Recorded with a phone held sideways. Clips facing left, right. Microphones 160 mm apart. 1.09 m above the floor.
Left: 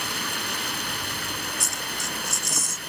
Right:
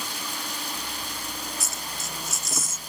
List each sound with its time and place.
0.0 s running water: 70° left (ahead or behind)
1.6 s a dropped coin: centre (ahead or behind)